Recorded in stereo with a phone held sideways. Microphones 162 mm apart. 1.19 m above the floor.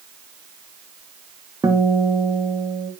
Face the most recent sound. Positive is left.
turn(degrees=-20)  # may be behind; listen again after turning